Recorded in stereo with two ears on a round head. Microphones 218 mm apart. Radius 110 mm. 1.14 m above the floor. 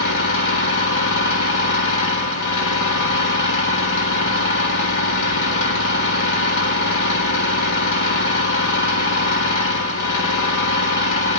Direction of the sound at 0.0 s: 50° left (ahead or behind).